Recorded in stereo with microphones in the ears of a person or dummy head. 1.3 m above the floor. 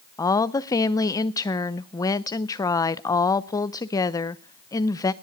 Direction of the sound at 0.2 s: 15° left (ahead or behind).